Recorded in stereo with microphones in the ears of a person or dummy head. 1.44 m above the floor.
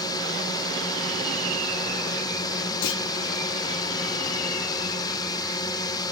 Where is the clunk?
75° left (ahead or behind).